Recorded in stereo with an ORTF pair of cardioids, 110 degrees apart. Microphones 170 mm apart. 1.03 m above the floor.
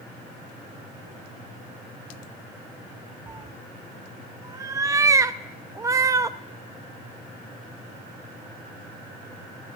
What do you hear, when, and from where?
3.3 s a cat meowing: 20° right, 0.5 m